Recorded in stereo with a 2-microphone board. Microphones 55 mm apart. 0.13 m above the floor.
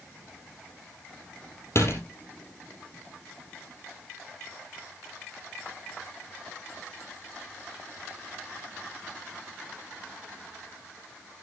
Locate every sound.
1.8 s a door slam: 55° left (ahead or behind), 3.5 m